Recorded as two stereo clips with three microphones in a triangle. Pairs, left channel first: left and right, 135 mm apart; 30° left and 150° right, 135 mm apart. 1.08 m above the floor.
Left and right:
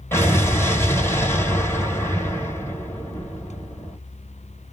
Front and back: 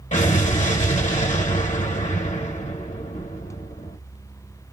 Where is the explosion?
20° left, 1.5 m.